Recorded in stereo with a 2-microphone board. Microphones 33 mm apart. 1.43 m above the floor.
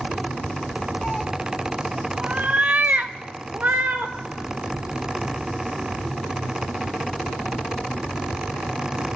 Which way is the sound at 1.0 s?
35° left (ahead or behind).